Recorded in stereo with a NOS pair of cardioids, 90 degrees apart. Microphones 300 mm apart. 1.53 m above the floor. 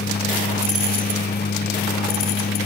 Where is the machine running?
35° left.